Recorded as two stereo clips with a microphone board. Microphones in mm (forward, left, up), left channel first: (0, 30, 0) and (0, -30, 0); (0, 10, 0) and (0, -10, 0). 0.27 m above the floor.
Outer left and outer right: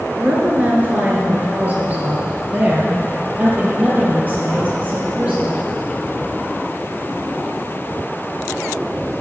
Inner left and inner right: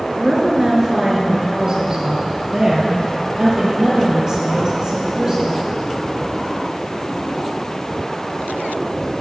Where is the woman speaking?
25° right (ahead or behind), 3 m; by 5.6 s 30° right (ahead or behind), 6 m.